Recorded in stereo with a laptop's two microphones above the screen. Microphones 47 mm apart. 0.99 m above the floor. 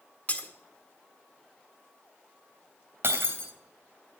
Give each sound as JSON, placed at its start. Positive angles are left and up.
{"t": 0.3, "sound": "breaking glass", "side_deg": 35, "distance_m": 1.5}
{"t": 3.0, "sound": "breaking glass", "side_deg": -60, "distance_m": 2.5}